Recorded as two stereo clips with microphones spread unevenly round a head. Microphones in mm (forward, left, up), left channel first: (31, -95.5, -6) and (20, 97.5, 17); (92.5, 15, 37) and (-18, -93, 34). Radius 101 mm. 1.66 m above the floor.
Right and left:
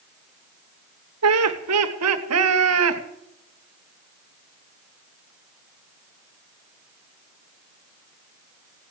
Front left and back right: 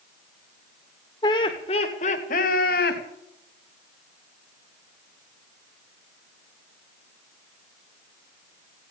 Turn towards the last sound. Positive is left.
turn(degrees=80)